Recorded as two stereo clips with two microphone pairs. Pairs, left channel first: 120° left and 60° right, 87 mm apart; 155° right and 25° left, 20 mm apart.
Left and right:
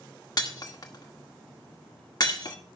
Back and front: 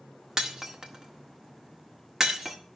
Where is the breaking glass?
80° left, 1.7 m.